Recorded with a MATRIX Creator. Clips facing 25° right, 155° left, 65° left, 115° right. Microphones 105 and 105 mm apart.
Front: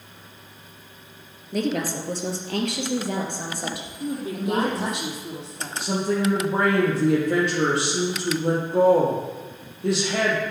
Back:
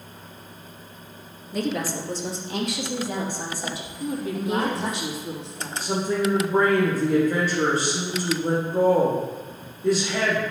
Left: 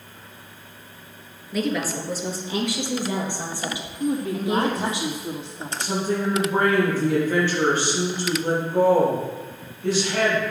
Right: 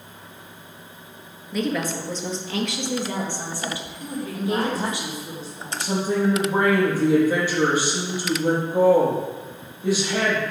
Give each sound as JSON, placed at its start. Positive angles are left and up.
{"t": 1.5, "sound": "a woman speaking", "azimuth_deg": -20, "distance_m": 2.5}
{"t": 4.0, "sound": "a woman speaking", "azimuth_deg": 35, "distance_m": 4.0}
{"t": 5.8, "sound": "a woman speaking", "azimuth_deg": -35, "distance_m": 5.0}